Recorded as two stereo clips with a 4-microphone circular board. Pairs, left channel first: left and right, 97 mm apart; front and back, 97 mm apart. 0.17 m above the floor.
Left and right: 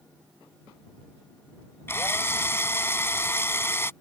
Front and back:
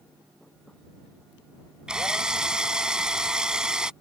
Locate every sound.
1.9 s a drill: 110° left